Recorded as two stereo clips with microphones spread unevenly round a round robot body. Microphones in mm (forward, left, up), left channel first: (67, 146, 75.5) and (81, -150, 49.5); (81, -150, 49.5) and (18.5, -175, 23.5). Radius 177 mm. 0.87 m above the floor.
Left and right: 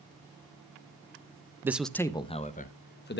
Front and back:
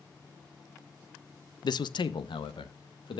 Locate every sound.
1.6 s a man speaking: 10° right, 0.6 m; by 3.2 s 35° left, 1.1 m